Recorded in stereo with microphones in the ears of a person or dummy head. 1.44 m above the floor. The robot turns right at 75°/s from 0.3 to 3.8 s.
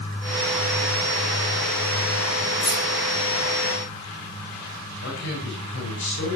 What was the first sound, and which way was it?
Keys jangling, 25° left (ahead or behind).